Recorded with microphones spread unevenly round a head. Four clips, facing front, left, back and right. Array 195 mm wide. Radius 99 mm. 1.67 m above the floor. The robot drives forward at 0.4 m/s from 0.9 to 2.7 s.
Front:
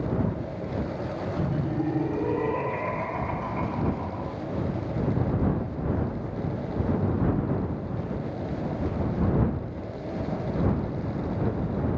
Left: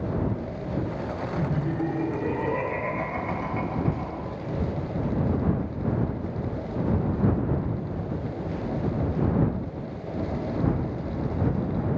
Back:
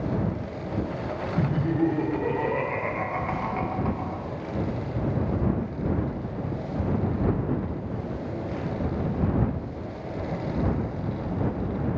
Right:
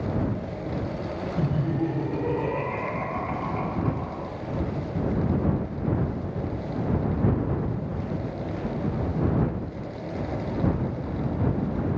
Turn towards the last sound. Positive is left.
turn(degrees=-170)